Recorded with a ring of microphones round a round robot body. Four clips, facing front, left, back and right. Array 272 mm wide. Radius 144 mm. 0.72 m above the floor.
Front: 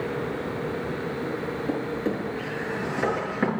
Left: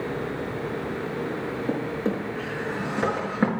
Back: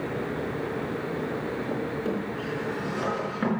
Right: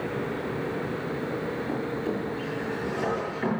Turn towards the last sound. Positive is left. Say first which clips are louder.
# left 4 dB, front 3 dB
turn(degrees=80)